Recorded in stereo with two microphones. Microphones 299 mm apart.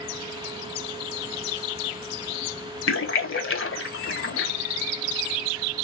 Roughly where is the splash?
Left.